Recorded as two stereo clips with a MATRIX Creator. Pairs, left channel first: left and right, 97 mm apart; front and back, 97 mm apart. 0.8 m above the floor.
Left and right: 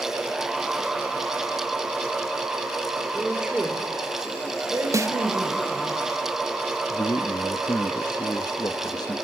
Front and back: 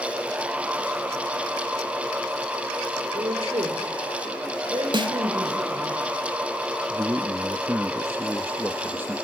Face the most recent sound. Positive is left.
turn(degrees=120)